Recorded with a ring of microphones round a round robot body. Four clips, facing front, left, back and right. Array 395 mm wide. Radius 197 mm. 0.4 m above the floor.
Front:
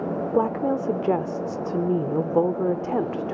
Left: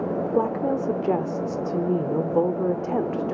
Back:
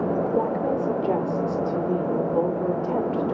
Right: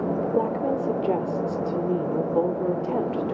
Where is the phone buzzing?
No phone buzzing in this recording.